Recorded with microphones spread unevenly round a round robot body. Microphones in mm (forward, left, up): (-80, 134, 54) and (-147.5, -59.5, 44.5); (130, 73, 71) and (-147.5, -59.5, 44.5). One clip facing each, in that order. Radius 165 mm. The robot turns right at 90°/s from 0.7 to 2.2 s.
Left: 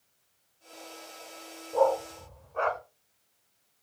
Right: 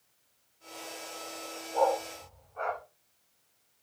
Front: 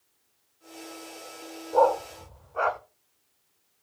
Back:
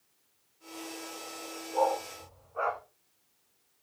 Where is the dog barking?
15° left, 0.8 m; by 2.8 s 60° left, 0.8 m.